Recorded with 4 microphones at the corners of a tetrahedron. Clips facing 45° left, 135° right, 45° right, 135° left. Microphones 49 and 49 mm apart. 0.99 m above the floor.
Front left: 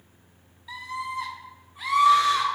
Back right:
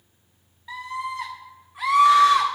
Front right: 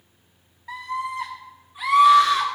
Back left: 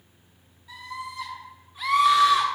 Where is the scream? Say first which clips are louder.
Back right 2 dB, front right 8 dB; 85° right, 1.5 m; by 2.5 s 145° right, 2 m.